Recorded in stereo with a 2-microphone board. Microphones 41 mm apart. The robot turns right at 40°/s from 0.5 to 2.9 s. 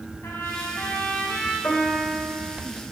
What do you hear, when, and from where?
0.2 s a trumpet: 100° left, 4 m; by 1.5 s 140° left, 4 m
1.6 s a piano: 125° left, 3 m; by 2.6 s 165° left, 3 m